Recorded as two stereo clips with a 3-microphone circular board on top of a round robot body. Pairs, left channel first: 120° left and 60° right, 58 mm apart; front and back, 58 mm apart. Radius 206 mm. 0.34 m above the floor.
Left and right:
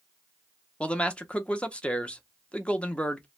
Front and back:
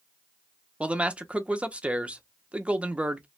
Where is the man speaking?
155° left, 0.9 m.